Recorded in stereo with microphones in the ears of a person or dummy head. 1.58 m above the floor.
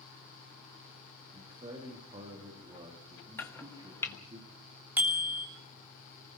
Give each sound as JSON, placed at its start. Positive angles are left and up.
{"t": 1.3, "sound": "a man speaking", "side_deg": -30, "distance_m": 3.5}
{"t": 3.4, "sound": "chopping", "side_deg": 10, "distance_m": 1.1}
{"t": 5.0, "sound": "a bicycle bell", "side_deg": -15, "distance_m": 3.0}